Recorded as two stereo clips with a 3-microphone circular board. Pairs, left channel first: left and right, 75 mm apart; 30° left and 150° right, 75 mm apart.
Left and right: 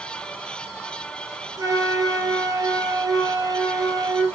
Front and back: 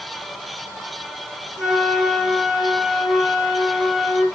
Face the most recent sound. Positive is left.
turn(degrees=-60)